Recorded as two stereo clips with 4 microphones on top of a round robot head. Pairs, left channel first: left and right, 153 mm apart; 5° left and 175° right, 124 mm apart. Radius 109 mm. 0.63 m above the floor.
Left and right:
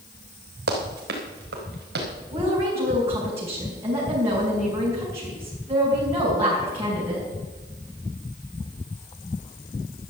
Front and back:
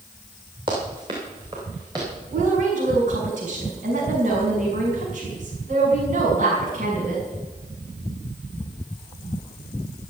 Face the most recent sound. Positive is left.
turn(degrees=-165)